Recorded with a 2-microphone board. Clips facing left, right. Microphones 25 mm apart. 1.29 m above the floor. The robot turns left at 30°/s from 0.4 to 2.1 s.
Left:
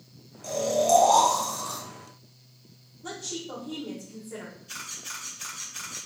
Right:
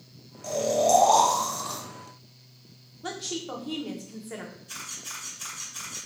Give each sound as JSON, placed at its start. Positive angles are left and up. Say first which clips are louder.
{"t": 0.4, "sound": "snoring", "louder": "even", "azimuth_deg": -10, "distance_m": 1.2}
{"t": 3.0, "sound": "a woman speaking", "louder": "right 2 dB", "side_deg": -55, "distance_m": 0.7}
{"t": 4.7, "sound": "a camera shutter", "louder": "left 2 dB", "side_deg": 25, "distance_m": 1.6}